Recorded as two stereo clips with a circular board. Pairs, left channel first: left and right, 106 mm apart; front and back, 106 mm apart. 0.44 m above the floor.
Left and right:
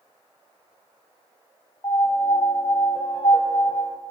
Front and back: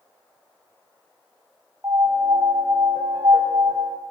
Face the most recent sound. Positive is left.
turn(degrees=130)